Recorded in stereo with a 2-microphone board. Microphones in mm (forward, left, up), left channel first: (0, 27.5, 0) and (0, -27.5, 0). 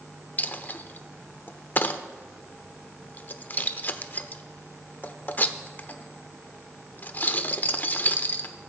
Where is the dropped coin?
35° left (ahead or behind), 0.5 m.